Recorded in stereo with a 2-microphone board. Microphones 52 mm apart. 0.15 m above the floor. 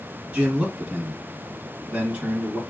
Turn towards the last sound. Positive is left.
turn(degrees=-20)  # may be behind; listen again after turning